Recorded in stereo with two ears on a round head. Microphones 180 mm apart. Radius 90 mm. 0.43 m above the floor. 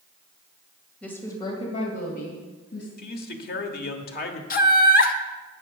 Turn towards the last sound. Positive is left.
turn(degrees=45)  # may be behind; listen again after turning